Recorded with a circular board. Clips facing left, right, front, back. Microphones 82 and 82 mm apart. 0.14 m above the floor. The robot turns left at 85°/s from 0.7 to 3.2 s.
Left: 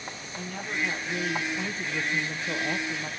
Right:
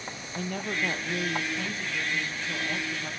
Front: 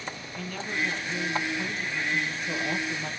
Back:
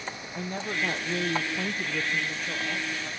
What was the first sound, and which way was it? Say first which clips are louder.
A woman speaking: right 2 dB, back 1 dB; 120° right.